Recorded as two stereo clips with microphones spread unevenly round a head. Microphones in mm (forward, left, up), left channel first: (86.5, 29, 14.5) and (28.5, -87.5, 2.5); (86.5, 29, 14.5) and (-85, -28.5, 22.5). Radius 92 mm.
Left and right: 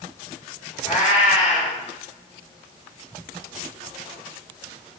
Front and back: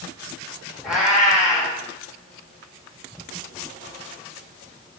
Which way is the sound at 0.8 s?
110° left.